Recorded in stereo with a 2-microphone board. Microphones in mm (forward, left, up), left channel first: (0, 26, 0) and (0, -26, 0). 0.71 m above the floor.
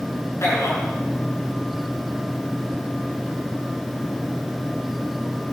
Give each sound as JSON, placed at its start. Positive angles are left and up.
{"t": 0.4, "sound": "a man speaking", "side_deg": 65, "distance_m": 5.0}